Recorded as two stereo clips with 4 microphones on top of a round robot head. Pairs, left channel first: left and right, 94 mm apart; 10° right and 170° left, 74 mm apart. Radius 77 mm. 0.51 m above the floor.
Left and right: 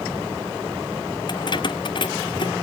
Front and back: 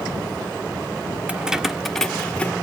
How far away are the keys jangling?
About 1.0 m.